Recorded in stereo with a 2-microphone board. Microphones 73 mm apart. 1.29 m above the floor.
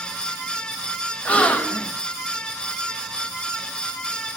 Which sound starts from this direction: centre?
A gasp, at 1.2 s.